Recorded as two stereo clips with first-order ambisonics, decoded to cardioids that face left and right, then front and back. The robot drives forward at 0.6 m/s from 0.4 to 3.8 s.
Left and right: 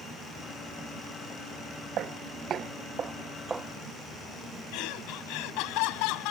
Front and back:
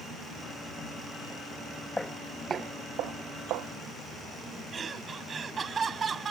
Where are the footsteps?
85° right; by 3.7 s 170° right.